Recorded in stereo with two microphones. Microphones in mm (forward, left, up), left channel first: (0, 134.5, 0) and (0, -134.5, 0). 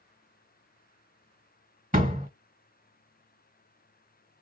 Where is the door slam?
30° right (ahead or behind), 1.8 m.